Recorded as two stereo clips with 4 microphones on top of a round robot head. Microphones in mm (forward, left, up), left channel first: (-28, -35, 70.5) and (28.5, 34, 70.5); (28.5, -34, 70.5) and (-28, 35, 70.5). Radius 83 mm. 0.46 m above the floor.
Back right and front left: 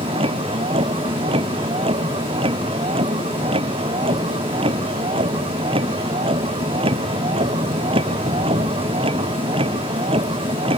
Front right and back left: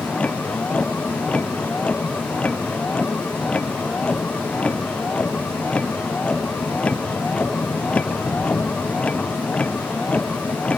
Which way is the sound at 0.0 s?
30° left.